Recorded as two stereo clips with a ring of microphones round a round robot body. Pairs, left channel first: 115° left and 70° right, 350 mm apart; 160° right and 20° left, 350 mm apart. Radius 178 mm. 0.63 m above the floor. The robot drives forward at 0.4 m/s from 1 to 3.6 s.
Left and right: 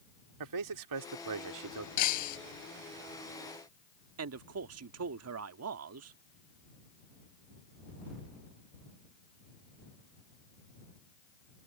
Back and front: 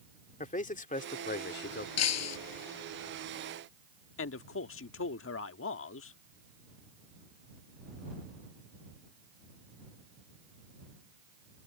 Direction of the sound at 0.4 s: 90° right.